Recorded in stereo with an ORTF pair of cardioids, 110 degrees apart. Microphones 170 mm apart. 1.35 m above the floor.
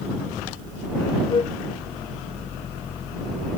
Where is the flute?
30° left.